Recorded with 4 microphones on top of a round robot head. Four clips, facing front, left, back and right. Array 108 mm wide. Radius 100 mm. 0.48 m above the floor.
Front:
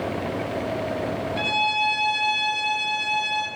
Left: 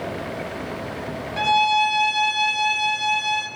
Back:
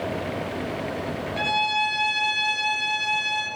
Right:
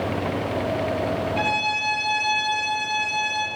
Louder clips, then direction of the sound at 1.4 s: Left 6 dB, back 1 dB; 90° left.